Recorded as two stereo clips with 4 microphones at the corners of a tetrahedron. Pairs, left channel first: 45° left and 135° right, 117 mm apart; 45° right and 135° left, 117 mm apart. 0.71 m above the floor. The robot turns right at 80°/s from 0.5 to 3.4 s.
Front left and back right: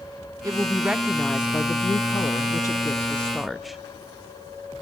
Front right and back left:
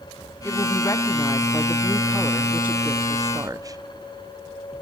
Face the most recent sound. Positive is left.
turn(degrees=135)